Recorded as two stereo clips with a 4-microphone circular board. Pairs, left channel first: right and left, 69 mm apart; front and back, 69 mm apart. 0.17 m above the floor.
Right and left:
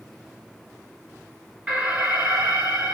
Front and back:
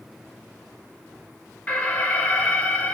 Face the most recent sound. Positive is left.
turn(degrees=35)